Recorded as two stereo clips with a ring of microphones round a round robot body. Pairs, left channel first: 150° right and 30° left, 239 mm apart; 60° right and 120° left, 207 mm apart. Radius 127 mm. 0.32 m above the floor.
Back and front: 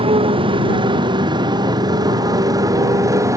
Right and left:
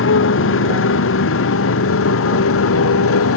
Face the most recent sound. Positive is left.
turn(degrees=-50)